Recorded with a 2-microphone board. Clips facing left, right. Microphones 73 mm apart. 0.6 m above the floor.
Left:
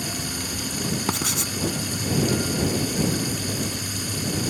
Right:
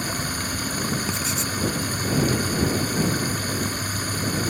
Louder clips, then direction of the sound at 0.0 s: Right 3 dB; 45° right (ahead or behind).